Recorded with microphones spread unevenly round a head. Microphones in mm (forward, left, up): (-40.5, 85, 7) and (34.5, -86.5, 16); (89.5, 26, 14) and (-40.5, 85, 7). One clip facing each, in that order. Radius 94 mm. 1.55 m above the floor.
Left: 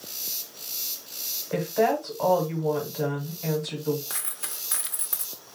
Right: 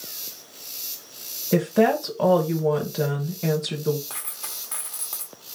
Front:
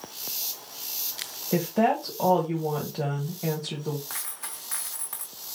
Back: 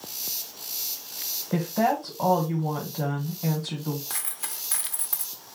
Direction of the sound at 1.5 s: 105° right.